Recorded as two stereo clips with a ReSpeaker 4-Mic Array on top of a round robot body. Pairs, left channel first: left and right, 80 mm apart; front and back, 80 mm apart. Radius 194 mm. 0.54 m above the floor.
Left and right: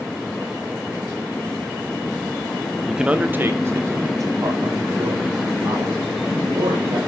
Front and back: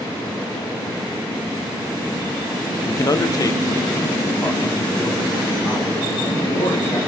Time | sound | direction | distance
2.9 | a man speaking | 5° right | 0.7 m